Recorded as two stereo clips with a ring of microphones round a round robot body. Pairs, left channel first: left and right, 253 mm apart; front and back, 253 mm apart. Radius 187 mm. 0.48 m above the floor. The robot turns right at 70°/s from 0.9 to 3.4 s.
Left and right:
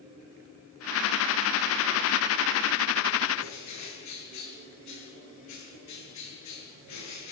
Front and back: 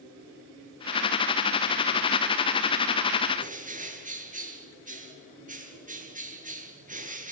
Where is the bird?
120° left, 8 m.